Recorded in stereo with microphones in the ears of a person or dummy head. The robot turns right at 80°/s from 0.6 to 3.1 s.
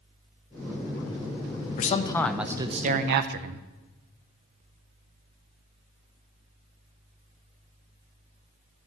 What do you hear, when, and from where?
1.8 s a man speaking: 135° left, 0.7 m; by 3.6 s 115° right, 0.7 m